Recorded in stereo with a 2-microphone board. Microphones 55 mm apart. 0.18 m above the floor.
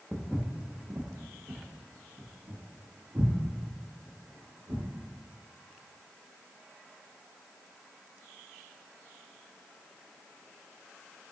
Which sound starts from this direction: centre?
Footsteps, at 0.1 s.